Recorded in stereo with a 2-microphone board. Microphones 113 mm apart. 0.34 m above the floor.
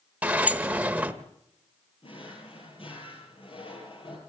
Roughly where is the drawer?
Left.